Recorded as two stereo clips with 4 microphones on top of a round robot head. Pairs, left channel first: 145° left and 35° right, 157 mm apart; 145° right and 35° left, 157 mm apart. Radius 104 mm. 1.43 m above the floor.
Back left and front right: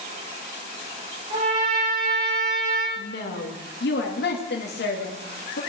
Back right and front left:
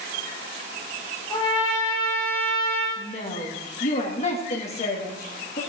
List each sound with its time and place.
1.3 s a trumpet: 85° right, 8.5 m
3.0 s a woman speaking: 165° left, 2.5 m